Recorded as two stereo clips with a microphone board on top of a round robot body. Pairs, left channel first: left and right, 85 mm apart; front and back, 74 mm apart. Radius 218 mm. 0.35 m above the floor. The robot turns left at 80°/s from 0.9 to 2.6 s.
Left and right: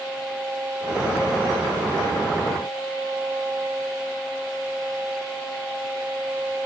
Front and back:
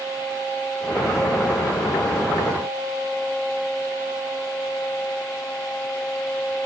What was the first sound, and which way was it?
Only background noise.